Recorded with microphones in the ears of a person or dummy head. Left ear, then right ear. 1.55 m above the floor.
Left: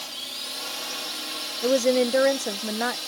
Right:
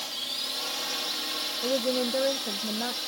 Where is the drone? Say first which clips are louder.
Right 1 dB; 5° right (ahead or behind).